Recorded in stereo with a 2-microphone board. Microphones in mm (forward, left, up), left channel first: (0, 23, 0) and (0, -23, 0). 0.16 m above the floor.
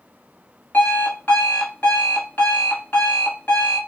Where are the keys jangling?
No keys jangling in this recording.